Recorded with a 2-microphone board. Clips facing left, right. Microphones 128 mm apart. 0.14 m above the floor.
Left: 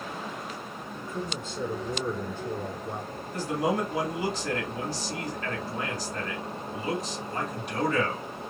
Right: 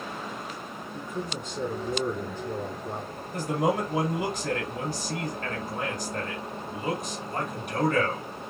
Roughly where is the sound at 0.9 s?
Centre.